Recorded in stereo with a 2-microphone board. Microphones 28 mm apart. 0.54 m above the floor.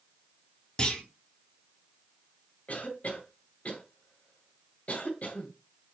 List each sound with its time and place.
0.8 s a clunk: 30° left (ahead or behind), 3 m
2.7 s a cough: 55° left (ahead or behind), 2.5 m